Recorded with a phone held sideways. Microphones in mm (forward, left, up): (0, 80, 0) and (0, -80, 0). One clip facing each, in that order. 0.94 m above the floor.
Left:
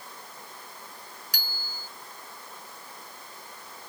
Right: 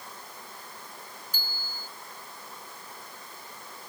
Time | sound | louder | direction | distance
1.3 | a bicycle bell | even | 85° left | ?